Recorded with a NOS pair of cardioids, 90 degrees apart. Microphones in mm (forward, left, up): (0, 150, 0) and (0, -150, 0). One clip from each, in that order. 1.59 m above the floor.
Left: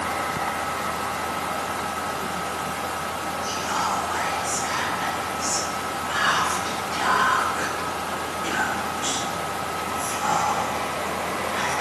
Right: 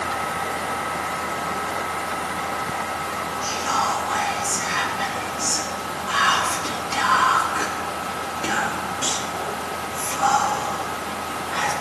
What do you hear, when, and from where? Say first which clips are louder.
3.4 s whispering: right 4 dB; 65° right, 3 m